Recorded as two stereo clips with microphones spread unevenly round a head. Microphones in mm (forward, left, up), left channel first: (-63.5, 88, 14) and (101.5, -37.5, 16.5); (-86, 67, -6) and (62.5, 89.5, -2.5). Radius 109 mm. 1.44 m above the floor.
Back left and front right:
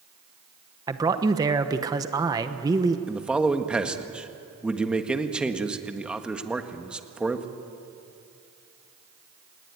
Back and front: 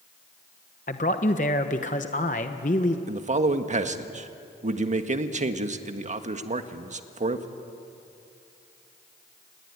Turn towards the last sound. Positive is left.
turn(degrees=50)